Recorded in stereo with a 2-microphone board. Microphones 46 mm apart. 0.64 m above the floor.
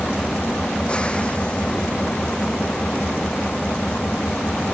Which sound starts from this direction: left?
An engine running, at 0.0 s.